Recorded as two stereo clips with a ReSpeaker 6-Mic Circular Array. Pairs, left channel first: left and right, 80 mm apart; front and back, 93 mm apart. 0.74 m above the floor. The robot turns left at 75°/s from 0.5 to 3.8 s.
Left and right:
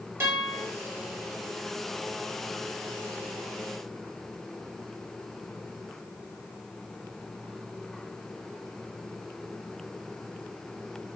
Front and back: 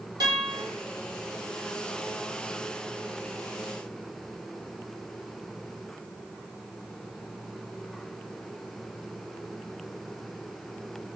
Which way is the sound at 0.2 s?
145° right.